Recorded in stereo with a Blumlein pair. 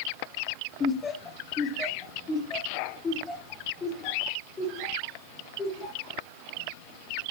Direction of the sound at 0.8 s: 20° left.